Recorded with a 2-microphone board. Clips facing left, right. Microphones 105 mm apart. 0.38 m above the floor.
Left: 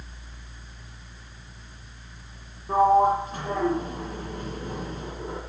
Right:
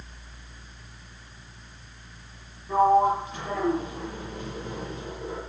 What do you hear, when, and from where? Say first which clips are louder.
2.7 s a sliding door: left 1 dB; 40° left (ahead or behind), 10 m